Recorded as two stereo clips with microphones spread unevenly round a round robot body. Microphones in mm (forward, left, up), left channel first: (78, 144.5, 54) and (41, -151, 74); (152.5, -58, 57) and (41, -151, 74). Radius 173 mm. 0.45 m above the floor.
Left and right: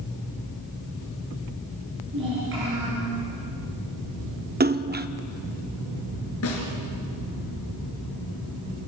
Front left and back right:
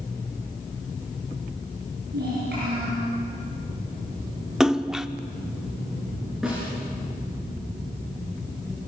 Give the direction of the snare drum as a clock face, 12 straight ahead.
8 o'clock.